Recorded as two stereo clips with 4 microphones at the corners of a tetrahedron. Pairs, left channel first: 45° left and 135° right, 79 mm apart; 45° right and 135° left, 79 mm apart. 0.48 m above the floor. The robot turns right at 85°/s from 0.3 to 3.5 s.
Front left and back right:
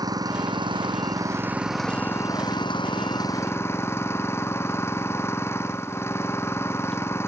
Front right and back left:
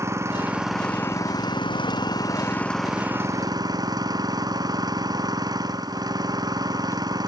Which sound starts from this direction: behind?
An engine running, at 0.0 s.